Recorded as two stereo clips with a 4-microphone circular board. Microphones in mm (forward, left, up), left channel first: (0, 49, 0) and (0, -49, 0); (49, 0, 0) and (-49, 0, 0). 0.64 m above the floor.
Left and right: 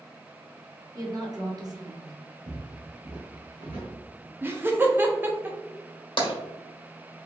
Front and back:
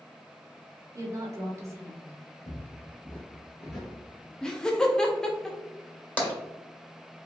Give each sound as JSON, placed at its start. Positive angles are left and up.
{"t": 0.9, "sound": "a woman speaking", "azimuth_deg": -130, "distance_m": 1.3}
{"t": 2.5, "sound": "footsteps", "azimuth_deg": -50, "distance_m": 1.6}
{"t": 4.4, "sound": "laughter", "azimuth_deg": -75, "distance_m": 0.5}
{"t": 6.2, "sound": "tapping", "azimuth_deg": 75, "distance_m": 1.7}